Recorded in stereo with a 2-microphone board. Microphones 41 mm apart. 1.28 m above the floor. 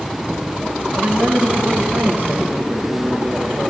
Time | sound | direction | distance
0.9 | a man speaking | 50° right (ahead or behind) | 1.1 m